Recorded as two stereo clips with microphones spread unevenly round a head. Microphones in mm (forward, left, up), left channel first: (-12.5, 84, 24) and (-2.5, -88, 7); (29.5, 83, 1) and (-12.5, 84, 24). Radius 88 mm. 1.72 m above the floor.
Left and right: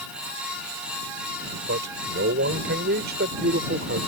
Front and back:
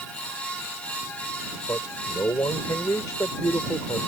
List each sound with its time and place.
1.7 s a man speaking: 55° right; by 4.1 s 45° right